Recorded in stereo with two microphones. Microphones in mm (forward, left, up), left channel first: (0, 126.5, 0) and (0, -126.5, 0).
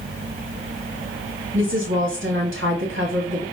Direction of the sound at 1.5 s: 50° right (ahead or behind).